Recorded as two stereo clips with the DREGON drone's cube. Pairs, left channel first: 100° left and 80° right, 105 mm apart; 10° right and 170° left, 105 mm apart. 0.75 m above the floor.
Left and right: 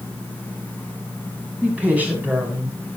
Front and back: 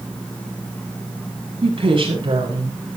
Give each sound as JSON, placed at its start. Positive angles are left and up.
{"t": 1.6, "sound": "a woman speaking", "azimuth_deg": -160, "distance_m": 6.0}